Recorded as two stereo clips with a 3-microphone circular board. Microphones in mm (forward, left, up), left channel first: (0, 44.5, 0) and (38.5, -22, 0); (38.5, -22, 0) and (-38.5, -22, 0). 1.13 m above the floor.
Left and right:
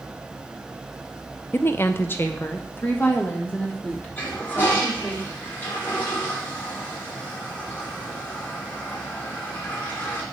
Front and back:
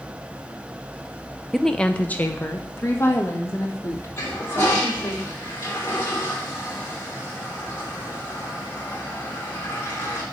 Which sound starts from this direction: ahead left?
A toilet flushing, at 4.2 s.